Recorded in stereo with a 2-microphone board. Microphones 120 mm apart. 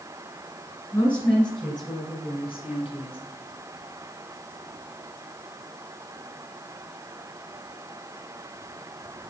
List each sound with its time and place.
0.9 s a woman speaking: 30° left (ahead or behind), 2.5 m; by 3.2 s 45° left (ahead or behind), 2.5 m